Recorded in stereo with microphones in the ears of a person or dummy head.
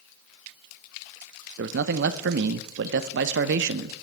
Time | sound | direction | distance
1.6 | a man speaking | 55° right (ahead or behind) | 0.6 m